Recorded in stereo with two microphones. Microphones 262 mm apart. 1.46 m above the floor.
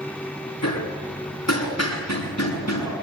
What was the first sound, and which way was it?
Hammering, 80° left.